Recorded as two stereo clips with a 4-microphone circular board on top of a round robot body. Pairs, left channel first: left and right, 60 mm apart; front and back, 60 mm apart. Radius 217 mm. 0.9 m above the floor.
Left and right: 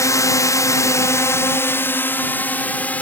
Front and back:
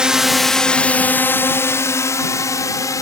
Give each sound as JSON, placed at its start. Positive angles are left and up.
{"t": 0.0, "sound": "a drone", "azimuth_deg": 105}